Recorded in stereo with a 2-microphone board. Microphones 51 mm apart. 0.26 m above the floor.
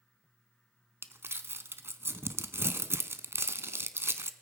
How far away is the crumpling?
About 0.5 m.